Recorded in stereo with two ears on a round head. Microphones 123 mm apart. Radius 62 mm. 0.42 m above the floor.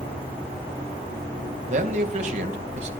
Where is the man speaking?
55° right (ahead or behind), 3 m.